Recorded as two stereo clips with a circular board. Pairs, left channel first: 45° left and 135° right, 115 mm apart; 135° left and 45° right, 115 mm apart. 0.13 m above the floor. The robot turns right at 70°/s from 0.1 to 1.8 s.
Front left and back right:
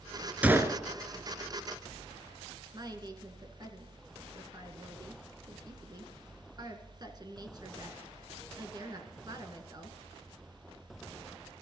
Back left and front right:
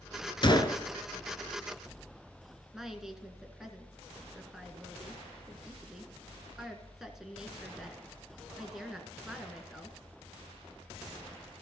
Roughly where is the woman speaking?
Behind right.